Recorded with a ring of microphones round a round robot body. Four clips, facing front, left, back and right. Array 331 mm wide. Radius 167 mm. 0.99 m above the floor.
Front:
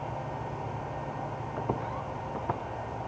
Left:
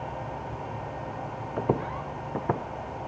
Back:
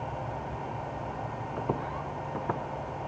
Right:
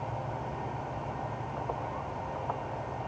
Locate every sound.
1.6 s footsteps: 95° left; by 2.6 s 100° left